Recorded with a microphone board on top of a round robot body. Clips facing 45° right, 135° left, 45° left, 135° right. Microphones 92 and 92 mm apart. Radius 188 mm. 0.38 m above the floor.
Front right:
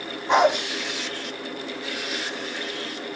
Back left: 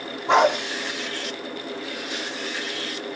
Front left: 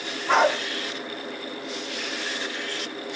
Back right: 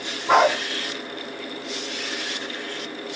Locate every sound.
0.3 s a dog barking: 140° left, 6 m